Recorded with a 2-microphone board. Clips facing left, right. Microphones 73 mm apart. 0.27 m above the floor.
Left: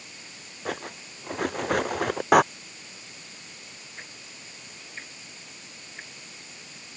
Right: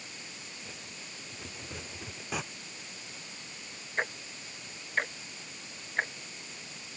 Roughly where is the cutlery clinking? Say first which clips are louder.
Left 13 dB; left.